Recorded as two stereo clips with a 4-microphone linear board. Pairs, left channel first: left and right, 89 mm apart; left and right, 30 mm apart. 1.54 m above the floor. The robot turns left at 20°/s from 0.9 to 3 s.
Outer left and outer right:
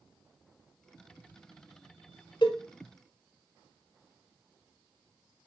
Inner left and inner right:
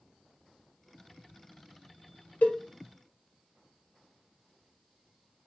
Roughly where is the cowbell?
Left.